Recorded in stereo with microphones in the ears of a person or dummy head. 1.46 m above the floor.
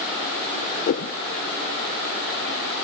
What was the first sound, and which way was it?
A whoosh, 40° left (ahead or behind).